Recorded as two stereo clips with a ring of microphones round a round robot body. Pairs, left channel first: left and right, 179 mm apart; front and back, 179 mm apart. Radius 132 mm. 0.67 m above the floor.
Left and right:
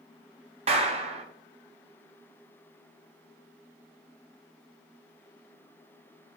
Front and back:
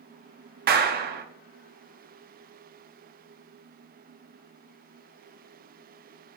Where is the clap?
150° right, 0.6 m.